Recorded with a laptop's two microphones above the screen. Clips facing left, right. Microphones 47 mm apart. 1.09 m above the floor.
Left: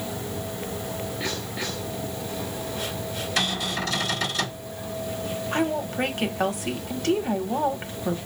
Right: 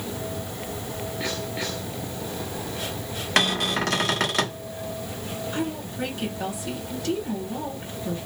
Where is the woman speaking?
50° left (ahead or behind), 1.0 m.